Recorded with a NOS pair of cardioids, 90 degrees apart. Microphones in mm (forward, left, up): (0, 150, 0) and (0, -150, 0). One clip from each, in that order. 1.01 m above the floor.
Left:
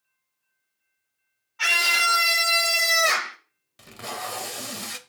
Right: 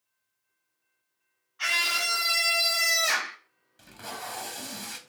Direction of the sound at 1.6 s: 65° left.